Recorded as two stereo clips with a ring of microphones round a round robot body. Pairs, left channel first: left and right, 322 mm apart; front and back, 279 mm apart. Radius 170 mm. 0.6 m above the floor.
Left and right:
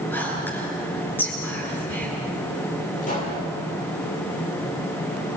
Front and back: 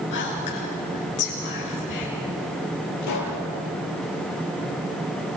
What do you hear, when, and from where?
0.1 s whispering: 5° left, 8.5 m
3.0 s a pop: 20° left, 9.5 m